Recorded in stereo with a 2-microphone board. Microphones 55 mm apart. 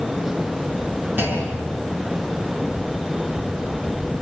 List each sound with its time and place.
1.2 s a clunk: 40° right (ahead or behind), 7 m